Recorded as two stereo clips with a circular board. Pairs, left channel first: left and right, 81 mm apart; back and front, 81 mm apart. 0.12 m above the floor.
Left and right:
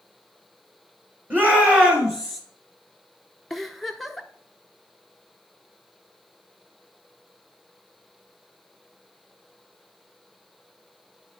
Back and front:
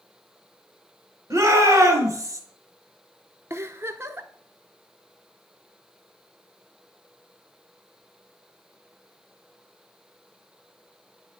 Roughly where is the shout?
Ahead right.